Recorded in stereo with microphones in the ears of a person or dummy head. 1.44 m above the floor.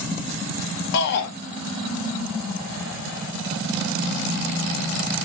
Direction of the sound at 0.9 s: 65° left (ahead or behind).